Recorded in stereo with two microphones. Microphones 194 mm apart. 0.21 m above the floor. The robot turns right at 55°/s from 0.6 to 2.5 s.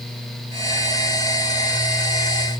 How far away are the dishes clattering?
I don't hear dishes clattering.